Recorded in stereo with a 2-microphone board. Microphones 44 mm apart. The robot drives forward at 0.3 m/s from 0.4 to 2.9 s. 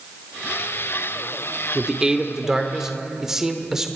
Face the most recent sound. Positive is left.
turn(degrees=-10)  # may be behind; listen again after turning